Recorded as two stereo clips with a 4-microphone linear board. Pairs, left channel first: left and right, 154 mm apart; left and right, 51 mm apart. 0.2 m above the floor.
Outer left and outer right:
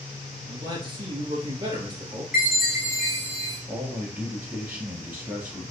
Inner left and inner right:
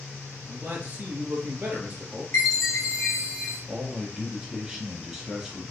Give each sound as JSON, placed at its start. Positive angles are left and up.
{"t": 0.5, "sound": "a man speaking", "side_deg": -35, "distance_m": 3.0}
{"t": 2.3, "sound": "a chime", "side_deg": 70, "distance_m": 4.0}
{"t": 3.7, "sound": "a man speaking", "side_deg": -5, "distance_m": 4.0}